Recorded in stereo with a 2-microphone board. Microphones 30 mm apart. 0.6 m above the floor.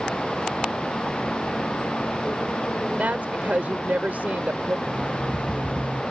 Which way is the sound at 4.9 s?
60° left (ahead or behind).